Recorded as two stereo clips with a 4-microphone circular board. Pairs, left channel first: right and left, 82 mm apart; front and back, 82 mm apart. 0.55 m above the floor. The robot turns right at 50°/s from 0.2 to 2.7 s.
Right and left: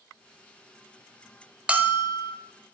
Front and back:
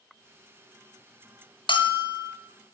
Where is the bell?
15° left, 0.6 m; by 2.3 s 45° left, 0.6 m.